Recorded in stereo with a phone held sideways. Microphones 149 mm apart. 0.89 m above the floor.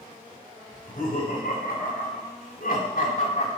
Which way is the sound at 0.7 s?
70° left (ahead or behind).